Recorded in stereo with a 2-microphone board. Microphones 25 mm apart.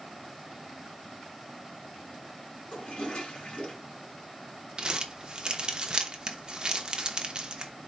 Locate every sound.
2.7 s a toilet flushing: 65° left (ahead or behind), 2.5 m
4.8 s crumpling: 40° right (ahead or behind), 0.8 m